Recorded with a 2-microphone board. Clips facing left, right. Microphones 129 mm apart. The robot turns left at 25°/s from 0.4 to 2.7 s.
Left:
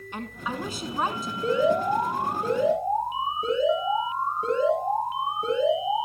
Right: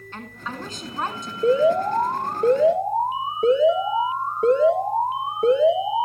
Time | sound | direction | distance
0.1 | a woman speaking | 15° left (ahead or behind) | 1.7 m
1.4 | an alarm | 50° right | 4 m